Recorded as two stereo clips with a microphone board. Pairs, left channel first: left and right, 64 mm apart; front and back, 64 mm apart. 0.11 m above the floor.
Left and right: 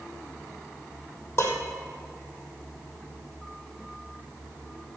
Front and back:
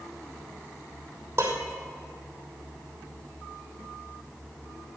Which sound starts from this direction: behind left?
Dishes clattering, at 1.4 s.